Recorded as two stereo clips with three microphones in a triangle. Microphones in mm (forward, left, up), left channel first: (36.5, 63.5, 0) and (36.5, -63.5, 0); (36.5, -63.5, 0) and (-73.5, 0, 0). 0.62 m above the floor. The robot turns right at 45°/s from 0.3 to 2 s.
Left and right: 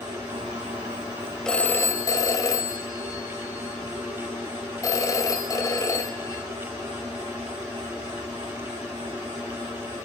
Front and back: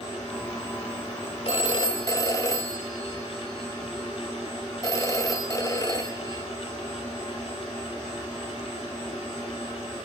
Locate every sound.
1.4 s a phone ringing: 5° left, 2.5 m; by 6.5 s 30° left, 2.5 m